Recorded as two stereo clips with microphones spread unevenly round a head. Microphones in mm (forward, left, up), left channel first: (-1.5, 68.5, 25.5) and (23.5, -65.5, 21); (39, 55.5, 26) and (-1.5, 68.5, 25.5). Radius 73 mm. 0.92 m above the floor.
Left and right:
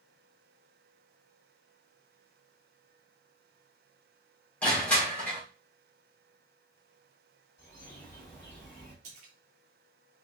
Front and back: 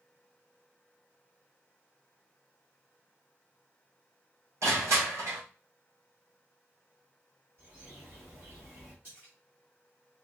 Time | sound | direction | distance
4.6 | crushing | straight behind | 1.4 m
7.6 | a bird | 175° left | 2.5 m
9.0 | a splash | 120° right | 1.0 m